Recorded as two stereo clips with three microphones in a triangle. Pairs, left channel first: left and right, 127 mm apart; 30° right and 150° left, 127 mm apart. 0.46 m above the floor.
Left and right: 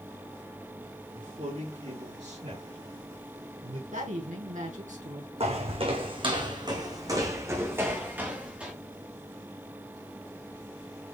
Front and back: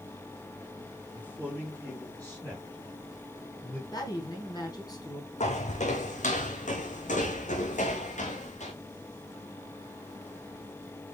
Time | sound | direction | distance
1.1 | a man speaking | 110° right | 4 m
3.9 | a woman speaking | 90° right | 3.5 m
5.4 | footsteps | 55° right | 1.9 m